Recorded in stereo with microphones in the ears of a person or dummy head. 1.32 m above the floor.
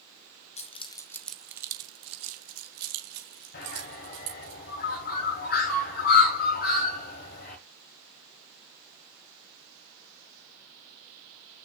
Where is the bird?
40° left (ahead or behind), 1.4 m.